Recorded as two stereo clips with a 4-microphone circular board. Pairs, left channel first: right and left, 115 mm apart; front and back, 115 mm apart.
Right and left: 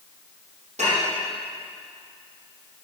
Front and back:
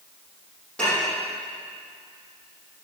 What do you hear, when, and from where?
0.8 s dishes clattering: 80° left, 6.5 m